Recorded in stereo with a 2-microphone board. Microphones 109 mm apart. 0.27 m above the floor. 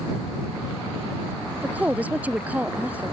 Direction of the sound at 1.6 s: 15° right (ahead or behind).